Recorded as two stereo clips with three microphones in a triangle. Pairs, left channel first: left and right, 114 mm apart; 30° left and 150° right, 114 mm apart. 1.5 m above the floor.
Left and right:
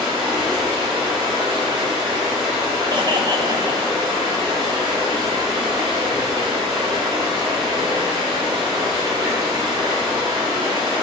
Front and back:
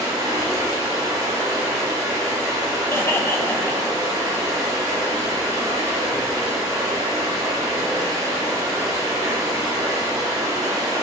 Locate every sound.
0.0 s running water: 105° right, 1.2 m
2.9 s laughter: 40° right, 0.6 m